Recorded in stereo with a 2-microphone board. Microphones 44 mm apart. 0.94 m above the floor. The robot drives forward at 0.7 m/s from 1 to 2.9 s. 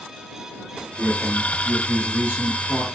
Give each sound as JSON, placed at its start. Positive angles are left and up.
{"t": 1.0, "sound": "a man speaking", "side_deg": -20, "distance_m": 2.0}